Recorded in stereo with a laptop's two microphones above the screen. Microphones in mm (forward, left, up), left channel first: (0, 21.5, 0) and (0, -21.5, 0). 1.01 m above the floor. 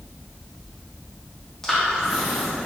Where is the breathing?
10° left (ahead or behind), 0.8 m.